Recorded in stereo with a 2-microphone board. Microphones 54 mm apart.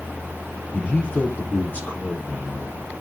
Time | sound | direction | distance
0.7 | a man speaking | 25° left (ahead or behind) | 4 m